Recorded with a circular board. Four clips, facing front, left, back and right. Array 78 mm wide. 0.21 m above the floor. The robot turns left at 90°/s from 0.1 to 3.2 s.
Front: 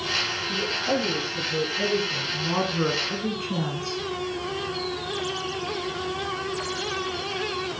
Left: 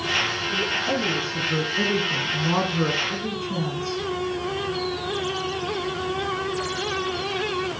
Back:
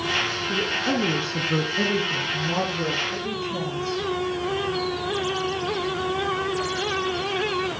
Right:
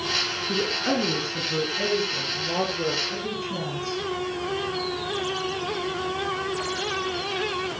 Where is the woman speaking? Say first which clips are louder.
Right 2 dB, even; 95° right, 8.5 m; by 4.0 s 20° left, 8.5 m.